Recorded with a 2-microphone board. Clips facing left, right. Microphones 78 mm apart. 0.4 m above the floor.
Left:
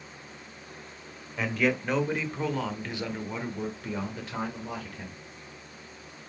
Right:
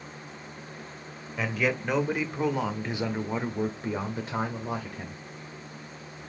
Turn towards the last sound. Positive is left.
turn(degrees=-30)  # may be behind; listen again after turning